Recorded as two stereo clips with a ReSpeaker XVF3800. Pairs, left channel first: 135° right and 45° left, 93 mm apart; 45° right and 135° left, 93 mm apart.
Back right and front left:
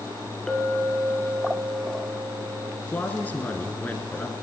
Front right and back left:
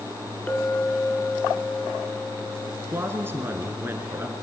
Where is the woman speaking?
170° left, 1.2 m.